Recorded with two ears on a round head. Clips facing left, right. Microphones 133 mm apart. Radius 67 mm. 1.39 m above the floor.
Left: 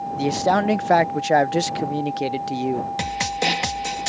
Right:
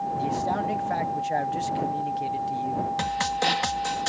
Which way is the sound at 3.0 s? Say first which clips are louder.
Left 1 dB; 20° left (ahead or behind).